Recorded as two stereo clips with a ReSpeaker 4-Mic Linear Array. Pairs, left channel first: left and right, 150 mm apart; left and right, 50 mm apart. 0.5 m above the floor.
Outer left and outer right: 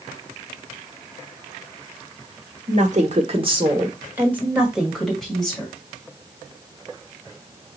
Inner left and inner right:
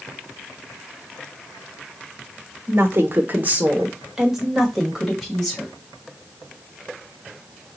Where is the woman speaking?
55° right (ahead or behind), 1.2 m; by 5.7 s 5° left (ahead or behind), 2.5 m.